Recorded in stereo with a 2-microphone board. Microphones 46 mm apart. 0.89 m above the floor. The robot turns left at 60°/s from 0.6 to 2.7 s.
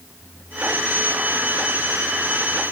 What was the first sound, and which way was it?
Only background noise.